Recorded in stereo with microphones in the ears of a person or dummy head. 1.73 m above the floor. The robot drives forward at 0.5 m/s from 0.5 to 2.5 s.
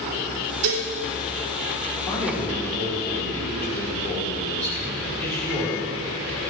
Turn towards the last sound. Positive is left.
turn(degrees=10)  # may be behind; listen again after turning